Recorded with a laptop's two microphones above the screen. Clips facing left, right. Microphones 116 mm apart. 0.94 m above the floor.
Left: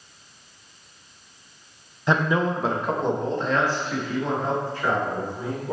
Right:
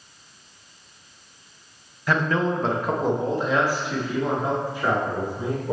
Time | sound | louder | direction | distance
2.1 | a man speaking | left 1 dB | 25° left (ahead or behind) | 0.6 m